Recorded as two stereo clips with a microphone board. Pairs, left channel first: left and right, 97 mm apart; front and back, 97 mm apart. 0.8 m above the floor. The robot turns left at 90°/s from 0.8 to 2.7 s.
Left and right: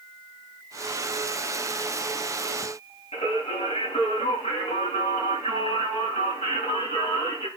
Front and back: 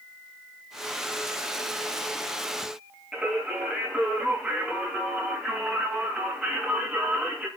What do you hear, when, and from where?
3.1 s singing: 95° left, 6.5 m